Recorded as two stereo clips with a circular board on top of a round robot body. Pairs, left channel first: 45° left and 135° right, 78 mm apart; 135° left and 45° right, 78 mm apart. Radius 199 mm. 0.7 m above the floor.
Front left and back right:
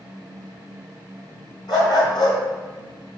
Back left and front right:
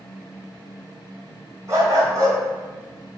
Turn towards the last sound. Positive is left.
turn(degrees=5)